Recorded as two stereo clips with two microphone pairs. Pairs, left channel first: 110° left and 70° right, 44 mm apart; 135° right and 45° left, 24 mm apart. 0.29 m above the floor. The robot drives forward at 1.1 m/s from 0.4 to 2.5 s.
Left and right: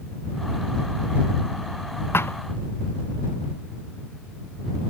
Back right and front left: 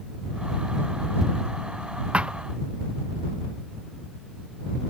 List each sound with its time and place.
2.1 s a thud: 85° left; by 2.4 s 95° left